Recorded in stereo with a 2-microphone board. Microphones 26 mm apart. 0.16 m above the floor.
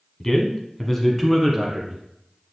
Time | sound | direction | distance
0.2 | a man speaking | 20° left (ahead or behind) | 1.2 m